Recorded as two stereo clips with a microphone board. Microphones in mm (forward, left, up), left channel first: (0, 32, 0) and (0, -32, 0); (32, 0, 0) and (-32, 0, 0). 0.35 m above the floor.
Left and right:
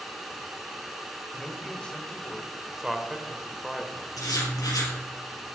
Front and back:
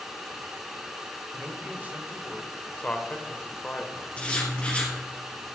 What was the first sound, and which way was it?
A man speaking, 150° left.